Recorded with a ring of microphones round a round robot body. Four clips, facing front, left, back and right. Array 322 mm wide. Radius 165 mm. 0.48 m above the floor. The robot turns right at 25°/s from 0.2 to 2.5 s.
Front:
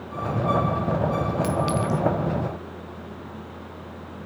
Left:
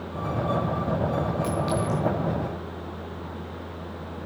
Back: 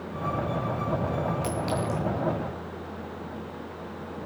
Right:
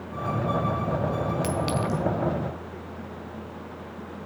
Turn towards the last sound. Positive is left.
turn(degrees=-35)